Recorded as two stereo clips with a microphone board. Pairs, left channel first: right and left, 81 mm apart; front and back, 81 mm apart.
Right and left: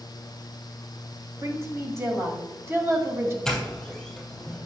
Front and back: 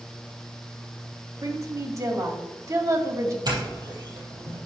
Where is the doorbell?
175° right, 3.5 m.